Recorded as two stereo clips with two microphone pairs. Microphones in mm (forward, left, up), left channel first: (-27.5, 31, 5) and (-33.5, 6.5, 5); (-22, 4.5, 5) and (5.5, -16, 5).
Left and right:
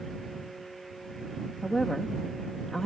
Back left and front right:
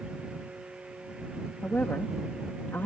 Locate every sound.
1.6 s a woman speaking: 145° left